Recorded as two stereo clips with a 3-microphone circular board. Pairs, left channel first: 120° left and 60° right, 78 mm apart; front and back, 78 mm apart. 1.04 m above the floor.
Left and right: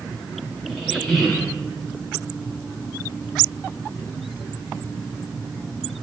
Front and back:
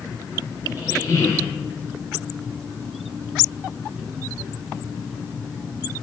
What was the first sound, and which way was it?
A squeak, 35° left.